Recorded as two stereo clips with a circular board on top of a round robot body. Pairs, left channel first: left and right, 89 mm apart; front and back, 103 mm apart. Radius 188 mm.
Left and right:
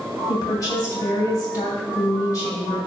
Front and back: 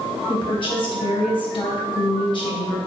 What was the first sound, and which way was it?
A woman speaking, 40° left.